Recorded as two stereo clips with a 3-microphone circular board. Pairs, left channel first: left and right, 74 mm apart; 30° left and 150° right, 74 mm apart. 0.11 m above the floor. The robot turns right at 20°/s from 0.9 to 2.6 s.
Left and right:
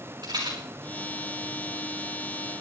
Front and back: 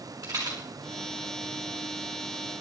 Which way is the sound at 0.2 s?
120° right.